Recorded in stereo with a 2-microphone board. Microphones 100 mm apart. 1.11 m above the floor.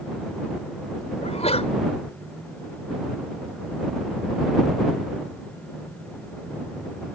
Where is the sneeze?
80° left.